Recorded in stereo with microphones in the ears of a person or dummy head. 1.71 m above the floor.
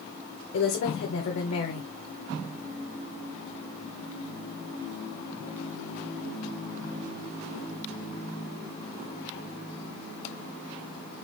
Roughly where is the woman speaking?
Left.